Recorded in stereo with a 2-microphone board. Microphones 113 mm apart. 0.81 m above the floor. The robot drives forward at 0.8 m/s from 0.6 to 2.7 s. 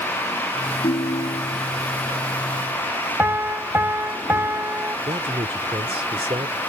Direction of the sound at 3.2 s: 20° right (ahead or behind).